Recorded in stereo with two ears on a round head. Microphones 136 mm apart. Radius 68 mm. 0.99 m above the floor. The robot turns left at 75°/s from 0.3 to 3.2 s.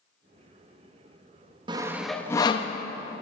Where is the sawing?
30° right (ahead or behind), 0.6 m; by 2.7 s 45° left (ahead or behind), 0.6 m.